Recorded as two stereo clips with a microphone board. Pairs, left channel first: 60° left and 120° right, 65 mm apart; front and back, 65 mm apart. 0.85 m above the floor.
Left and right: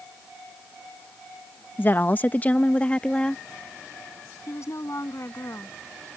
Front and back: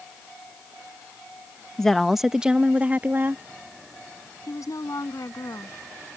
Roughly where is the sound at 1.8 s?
Left.